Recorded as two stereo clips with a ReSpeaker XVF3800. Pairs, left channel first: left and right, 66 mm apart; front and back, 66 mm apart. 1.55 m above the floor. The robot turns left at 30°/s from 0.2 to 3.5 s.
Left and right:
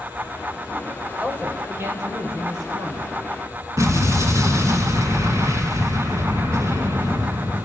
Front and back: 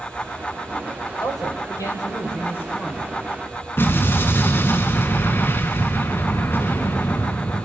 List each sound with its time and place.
1.2 s a man speaking: 20° right, 6 m; by 3.1 s 75° right, 6 m
3.8 s an explosion: 50° right, 3.5 m